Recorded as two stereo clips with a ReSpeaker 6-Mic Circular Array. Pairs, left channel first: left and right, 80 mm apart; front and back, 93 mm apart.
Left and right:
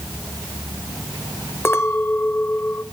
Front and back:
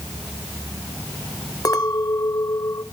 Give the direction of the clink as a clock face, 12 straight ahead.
11 o'clock.